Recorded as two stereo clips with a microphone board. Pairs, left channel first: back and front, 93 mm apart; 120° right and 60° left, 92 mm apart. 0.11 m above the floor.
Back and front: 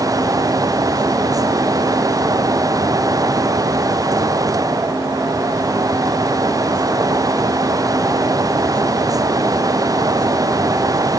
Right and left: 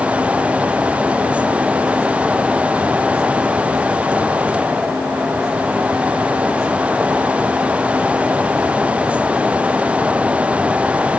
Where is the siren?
No siren in this recording.